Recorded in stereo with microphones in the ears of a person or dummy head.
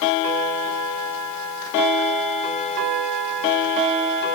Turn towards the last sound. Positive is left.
No sound to turn to.